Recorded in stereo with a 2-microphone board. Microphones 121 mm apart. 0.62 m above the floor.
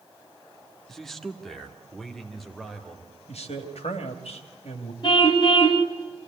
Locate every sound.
0.9 s a man speaking: 5° left (ahead or behind), 1.3 m; by 3.1 s centre (ahead or behind), 3.5 m
3.3 s a man speaking: 70° left (ahead or behind), 2.5 m
5.0 s a car horn: 45° left (ahead or behind), 2 m